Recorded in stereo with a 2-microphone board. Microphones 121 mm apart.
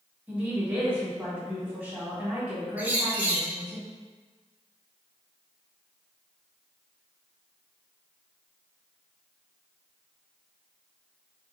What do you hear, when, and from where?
0.3 s a woman speaking: 10° right (ahead or behind), 1.3 m
2.8 s a bird: 15° right (ahead or behind), 0.6 m